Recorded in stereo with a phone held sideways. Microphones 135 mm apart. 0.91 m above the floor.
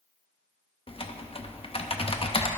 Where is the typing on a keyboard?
45° left (ahead or behind), 0.6 m.